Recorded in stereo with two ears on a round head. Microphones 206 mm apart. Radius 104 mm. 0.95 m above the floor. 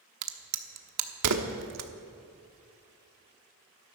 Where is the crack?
75° right (ahead or behind), 1.3 m.